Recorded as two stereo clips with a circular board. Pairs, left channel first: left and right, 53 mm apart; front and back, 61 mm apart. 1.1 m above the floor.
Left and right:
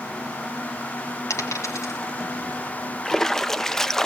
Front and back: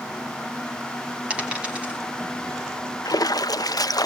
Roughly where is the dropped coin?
Left.